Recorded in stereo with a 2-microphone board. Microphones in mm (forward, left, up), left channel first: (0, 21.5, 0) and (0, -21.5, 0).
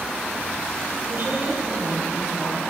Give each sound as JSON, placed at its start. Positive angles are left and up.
{"t": 1.1, "sound": "a woman speaking", "side_deg": -35, "distance_m": 9.0}